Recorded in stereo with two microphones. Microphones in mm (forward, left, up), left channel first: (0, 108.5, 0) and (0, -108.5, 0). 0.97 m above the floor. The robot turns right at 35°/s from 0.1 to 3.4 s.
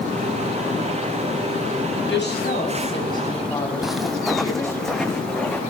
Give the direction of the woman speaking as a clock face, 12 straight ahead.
8 o'clock.